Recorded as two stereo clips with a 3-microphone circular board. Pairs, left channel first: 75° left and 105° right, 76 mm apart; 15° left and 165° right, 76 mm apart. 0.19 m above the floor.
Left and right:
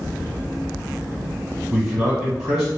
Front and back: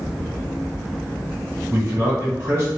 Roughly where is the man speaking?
Behind.